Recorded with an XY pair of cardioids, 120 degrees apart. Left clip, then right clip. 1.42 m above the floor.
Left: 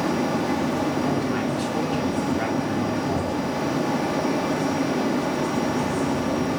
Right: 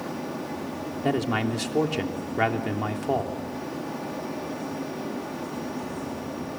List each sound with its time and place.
0.0 s a fan: 65° left, 1.7 m
1.0 s a man speaking: 40° right, 3 m